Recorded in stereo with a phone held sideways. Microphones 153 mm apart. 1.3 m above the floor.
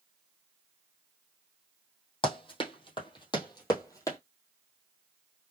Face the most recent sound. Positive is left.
turn(degrees=20)  # may be behind; listen again after turning